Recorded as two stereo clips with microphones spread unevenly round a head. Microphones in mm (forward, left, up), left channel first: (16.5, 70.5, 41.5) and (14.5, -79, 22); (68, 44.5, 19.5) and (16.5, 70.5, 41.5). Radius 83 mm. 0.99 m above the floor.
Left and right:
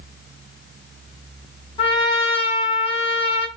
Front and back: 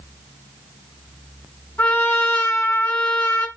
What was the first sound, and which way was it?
A trumpet, 35° left.